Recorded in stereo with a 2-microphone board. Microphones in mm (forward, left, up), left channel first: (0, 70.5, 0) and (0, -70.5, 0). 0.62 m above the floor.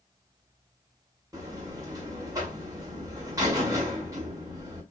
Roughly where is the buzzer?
Right.